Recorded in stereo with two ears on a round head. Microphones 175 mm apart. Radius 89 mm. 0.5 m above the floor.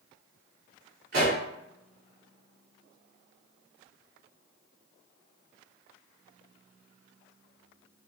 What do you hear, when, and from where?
1.1 s a pop: 50° right (ahead or behind), 1.5 m